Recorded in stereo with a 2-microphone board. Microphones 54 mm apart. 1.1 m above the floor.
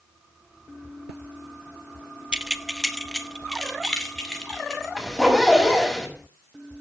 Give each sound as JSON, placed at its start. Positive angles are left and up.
{"t": 2.3, "sound": "keys jangling", "side_deg": -15, "distance_m": 0.6}
{"t": 5.0, "sound": "a zipper", "side_deg": 5, "distance_m": 5.5}